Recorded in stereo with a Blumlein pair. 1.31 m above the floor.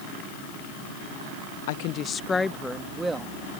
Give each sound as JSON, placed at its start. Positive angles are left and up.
{"t": 1.7, "sound": "a woman speaking", "azimuth_deg": 55}